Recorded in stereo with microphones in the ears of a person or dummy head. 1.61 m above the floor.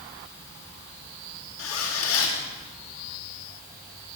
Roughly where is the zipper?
Left.